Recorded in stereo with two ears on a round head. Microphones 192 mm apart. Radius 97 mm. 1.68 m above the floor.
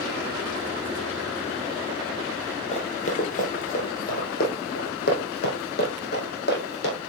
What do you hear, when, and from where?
2.7 s running footsteps: 35° left (ahead or behind), 2 m; by 7.0 s 55° left (ahead or behind), 4 m